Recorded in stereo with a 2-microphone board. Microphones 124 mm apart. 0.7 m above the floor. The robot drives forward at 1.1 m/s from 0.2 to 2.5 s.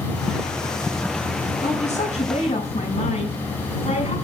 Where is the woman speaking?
70° left (ahead or behind), 5 m; by 4.2 s 60° left (ahead or behind), 5.5 m.